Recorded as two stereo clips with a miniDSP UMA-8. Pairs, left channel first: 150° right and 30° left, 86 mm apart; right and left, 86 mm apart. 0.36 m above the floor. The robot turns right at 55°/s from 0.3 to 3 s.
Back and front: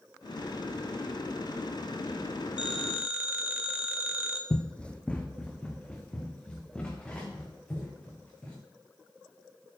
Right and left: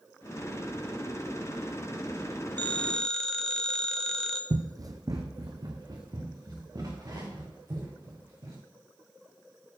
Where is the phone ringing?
40° right, 0.9 m; by 4.4 s 15° right, 0.9 m.